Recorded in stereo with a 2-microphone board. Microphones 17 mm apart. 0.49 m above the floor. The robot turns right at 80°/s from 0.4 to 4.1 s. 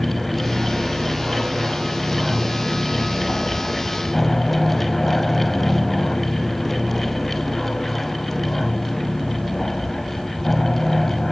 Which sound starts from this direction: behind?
An aircraft, at 0.0 s.